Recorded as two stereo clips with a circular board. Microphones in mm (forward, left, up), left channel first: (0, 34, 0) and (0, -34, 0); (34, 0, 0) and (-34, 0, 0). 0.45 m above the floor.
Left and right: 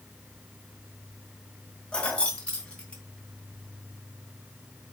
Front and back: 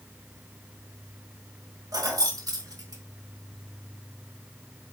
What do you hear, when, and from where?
1.9 s keys jangling: 165° left, 1.9 m; by 3.0 s 160° left, 3.5 m